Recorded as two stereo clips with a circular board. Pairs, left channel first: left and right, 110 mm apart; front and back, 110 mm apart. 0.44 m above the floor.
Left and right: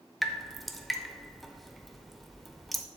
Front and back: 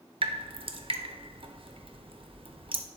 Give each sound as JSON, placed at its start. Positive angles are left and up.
{"t": 0.2, "sound": "dripping", "azimuth_deg": 180, "distance_m": 0.7}